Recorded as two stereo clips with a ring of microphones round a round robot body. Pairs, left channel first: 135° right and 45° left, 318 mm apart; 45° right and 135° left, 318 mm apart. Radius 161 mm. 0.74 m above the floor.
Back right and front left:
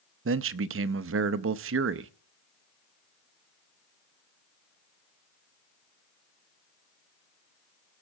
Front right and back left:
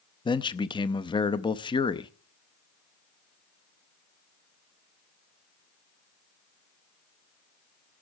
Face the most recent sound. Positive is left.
turn(degrees=25)